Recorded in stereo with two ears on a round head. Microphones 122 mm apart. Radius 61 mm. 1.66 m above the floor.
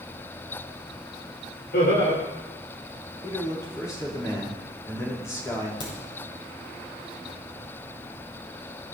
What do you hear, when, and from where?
1.7 s laughter: 85° left, 7 m
3.2 s a man speaking: 25° left (ahead or behind), 5.5 m
5.8 s a crack: 35° left (ahead or behind), 7.5 m